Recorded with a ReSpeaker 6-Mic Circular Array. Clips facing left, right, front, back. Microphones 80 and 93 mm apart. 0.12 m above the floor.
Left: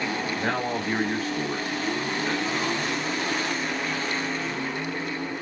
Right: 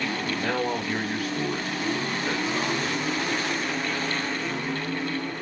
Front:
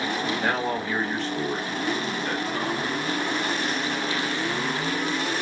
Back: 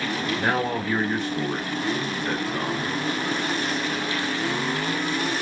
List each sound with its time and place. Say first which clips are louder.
0.4 s a man speaking: right 1 dB, back 4 dB; 115° left, 1.6 m; by 2.9 s 130° right, 1.3 m